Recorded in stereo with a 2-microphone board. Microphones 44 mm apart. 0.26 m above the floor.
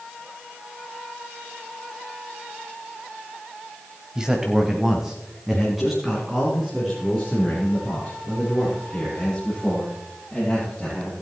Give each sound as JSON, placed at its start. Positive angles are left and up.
{"t": 4.2, "sound": "a man speaking", "side_deg": -15, "distance_m": 1.3}